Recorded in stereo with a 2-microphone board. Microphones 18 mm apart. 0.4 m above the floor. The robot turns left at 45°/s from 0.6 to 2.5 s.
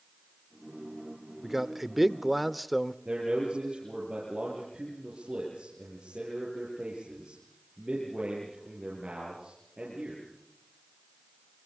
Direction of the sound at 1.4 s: 20° right (ahead or behind).